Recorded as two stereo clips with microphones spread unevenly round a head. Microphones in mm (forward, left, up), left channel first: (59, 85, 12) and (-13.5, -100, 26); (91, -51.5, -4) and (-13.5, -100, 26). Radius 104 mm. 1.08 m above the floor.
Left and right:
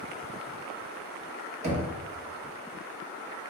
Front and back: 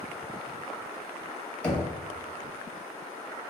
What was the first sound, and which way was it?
Knocking, 50° right.